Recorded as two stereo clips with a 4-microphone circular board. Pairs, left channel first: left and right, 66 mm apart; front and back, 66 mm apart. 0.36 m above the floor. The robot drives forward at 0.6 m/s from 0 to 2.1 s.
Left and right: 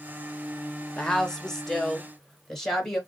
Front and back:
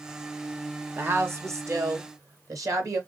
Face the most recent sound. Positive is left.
turn(degrees=175)